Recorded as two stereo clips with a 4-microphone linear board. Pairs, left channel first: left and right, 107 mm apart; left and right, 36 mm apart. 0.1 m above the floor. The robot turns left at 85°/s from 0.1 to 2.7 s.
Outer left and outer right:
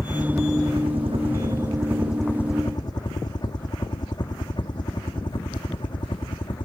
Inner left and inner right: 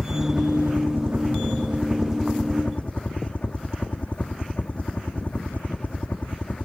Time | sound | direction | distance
0.0 | a helicopter | centre (ahead or behind) | ?